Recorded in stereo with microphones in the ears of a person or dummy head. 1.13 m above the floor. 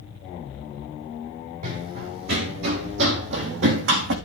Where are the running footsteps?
55° right (ahead or behind), 2.5 m; by 4.2 s 70° right (ahead or behind), 3.5 m.